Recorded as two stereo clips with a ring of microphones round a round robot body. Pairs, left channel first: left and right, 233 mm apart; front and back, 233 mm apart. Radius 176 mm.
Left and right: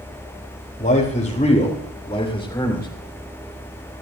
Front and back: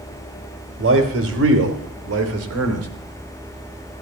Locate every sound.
0.8 s a man speaking: 155° left, 3.5 m; by 2.9 s 170° left, 2.5 m